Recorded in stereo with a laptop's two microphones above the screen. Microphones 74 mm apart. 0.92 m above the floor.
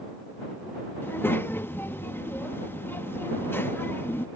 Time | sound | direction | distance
1.0 | a child speaking | 30° left (ahead or behind) | ?